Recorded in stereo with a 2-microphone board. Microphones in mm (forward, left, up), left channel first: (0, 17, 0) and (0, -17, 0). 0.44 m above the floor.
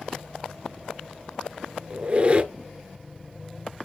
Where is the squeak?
45° right (ahead or behind), 0.6 m.